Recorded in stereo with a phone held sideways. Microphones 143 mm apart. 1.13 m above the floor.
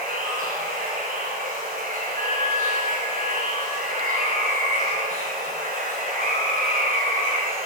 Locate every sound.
0.0 s running water: 80° right, 6 m
2.2 s a bell: 85° right, 9 m